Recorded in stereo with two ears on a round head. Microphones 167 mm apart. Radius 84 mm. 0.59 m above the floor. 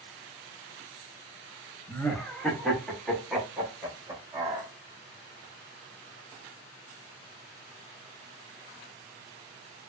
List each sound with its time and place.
1.9 s laughter: 10° left (ahead or behind), 0.7 m; by 4.7 s 5° right (ahead or behind), 1.7 m